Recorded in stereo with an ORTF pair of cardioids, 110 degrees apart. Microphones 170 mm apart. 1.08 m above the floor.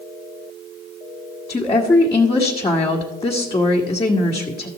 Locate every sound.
1.5 s a woman speaking: 25° left, 1.4 m